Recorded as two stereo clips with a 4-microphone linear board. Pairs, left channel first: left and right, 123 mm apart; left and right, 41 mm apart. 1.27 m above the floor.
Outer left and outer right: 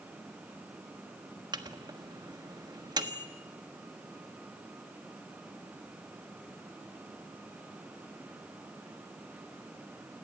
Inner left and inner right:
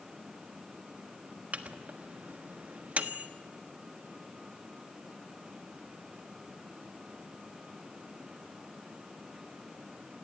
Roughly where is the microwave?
Right.